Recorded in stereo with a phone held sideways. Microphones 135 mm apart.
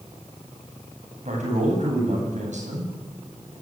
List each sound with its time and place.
1.2 s a man speaking: 60° right (ahead or behind), 10 m